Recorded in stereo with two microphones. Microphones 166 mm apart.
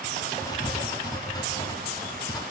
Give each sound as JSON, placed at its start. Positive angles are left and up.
{"t": 0.4, "sound": "writing", "side_deg": 20, "distance_m": 0.9}